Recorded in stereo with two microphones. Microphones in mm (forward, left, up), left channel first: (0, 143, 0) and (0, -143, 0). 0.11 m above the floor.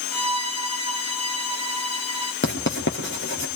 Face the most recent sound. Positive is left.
turn(degrees=40)  # may be behind; listen again after turning